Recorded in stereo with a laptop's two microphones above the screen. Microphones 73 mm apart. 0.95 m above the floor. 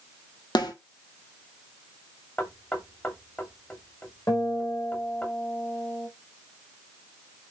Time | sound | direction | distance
0.6 | a snare drum | 80° left | 1.8 m
2.4 | knocking | 25° left (ahead or behind) | 2 m
4.3 | a guitar | 45° left (ahead or behind) | 4.5 m